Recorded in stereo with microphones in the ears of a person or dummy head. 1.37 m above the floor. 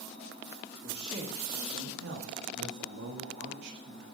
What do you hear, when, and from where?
0.8 s a man speaking: 35° right (ahead or behind), 2.0 m; by 4.0 s 50° right (ahead or behind), 2.5 m